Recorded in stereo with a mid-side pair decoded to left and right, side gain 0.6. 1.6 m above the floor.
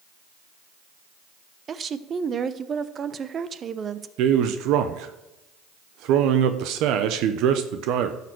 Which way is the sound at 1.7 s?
35° right.